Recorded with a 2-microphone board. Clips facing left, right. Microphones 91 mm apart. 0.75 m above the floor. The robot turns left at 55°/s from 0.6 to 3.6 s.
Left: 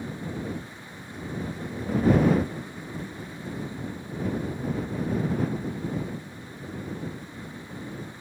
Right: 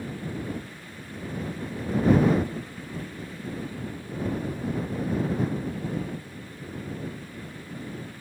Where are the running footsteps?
I don't hear running footsteps.